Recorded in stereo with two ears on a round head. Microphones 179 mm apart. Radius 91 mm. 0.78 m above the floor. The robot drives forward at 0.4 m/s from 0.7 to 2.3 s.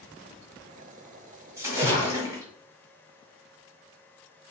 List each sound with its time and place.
1.6 s a splash: 15° right (ahead or behind), 1.4 m